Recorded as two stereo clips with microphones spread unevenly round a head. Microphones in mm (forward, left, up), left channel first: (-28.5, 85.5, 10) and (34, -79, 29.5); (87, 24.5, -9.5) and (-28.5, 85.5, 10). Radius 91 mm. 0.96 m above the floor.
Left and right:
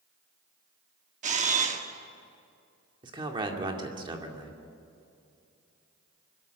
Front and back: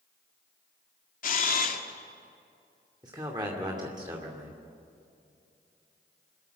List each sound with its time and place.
1.2 s a camera shutter: 20° right, 1.6 m
3.0 s a man speaking: 135° right, 2.5 m